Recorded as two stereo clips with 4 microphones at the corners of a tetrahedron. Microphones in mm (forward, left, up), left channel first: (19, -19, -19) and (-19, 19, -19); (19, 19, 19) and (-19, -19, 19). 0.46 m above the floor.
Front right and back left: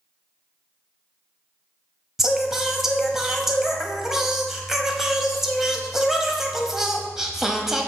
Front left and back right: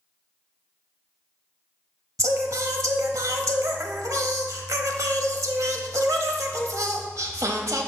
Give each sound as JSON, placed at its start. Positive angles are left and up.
{"t": 2.2, "sound": "singing", "azimuth_deg": -140, "distance_m": 0.7}